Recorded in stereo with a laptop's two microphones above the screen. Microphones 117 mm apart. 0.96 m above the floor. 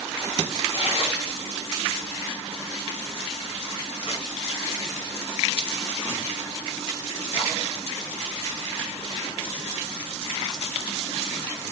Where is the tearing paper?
50° left (ahead or behind), 1.0 m.